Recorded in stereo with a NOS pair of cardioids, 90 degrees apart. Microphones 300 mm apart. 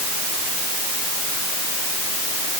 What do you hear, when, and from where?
Only background noise.